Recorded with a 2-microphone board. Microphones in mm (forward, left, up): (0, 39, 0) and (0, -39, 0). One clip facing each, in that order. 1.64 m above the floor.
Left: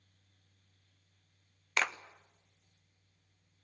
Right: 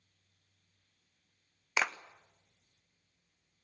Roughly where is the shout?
I don't hear a shout.